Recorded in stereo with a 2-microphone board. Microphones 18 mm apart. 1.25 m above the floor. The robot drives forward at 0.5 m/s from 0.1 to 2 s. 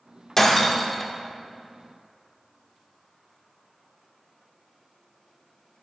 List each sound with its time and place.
0.4 s breaking glass: 15° left (ahead or behind), 1.3 m; by 1.1 s 20° left (ahead or behind), 1.0 m